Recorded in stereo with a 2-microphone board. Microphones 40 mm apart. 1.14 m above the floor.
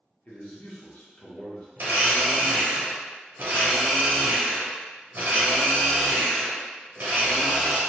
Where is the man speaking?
40° left (ahead or behind), 1.0 m.